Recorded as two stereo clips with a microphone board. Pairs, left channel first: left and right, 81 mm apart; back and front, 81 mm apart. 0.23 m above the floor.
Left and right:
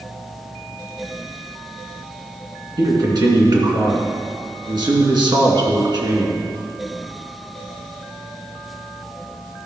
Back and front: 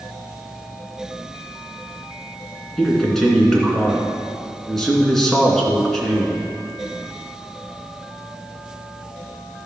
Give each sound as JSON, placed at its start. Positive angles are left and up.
{"t": 2.8, "sound": "a man speaking", "azimuth_deg": -95, "distance_m": 2.5}